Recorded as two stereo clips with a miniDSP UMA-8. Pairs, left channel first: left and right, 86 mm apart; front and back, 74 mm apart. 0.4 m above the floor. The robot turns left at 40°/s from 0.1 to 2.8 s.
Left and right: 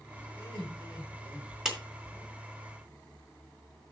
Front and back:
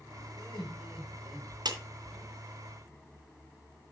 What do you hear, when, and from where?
0.3 s laughter: 15° left, 6 m; by 1.5 s 30° right, 6 m
1.6 s a clap: 175° right, 2.5 m; by 1.8 s straight behind, 2.5 m